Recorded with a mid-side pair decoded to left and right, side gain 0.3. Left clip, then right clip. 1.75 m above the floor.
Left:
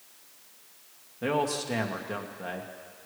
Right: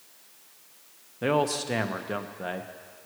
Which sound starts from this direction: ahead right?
A man speaking, at 1.2 s.